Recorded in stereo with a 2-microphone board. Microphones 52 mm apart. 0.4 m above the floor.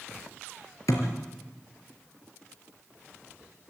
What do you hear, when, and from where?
0.9 s a thud: 80° left, 4 m